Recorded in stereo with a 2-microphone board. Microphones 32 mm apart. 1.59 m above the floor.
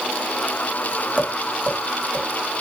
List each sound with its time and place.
1.2 s tapping: 45° right (ahead or behind), 2.5 m